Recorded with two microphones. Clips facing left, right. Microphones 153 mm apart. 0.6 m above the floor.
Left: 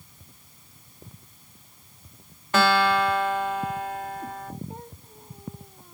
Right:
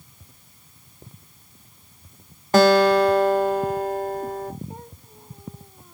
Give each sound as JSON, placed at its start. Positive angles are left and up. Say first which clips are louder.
{"t": 2.5, "sound": "a guitar", "louder": "right 7 dB", "side_deg": -35, "distance_m": 0.6}